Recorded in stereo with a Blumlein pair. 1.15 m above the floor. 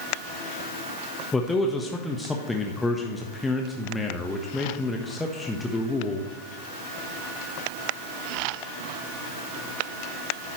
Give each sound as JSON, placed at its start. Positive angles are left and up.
{"t": 1.3, "sound": "a man speaking", "azimuth_deg": 10, "distance_m": 1.2}